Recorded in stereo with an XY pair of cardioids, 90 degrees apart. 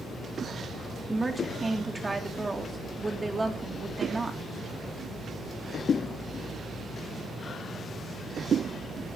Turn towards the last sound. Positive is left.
turn(degrees=-20)